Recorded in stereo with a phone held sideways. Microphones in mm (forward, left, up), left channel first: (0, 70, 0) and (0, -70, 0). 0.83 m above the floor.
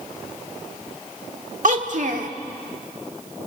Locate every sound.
1.6 s a child speaking: 65° right (ahead or behind), 1.8 m